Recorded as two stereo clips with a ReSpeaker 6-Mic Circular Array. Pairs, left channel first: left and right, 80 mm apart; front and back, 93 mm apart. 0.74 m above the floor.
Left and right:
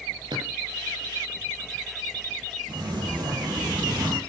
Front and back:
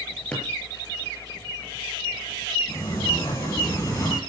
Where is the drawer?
75° right, 7 m.